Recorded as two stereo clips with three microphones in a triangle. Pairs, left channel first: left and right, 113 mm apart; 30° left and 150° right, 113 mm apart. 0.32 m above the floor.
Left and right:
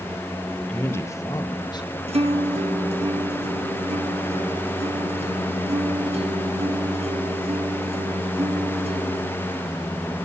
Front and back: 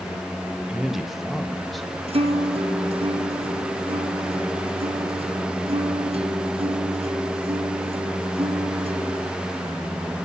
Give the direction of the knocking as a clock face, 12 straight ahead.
No knocking in this recording.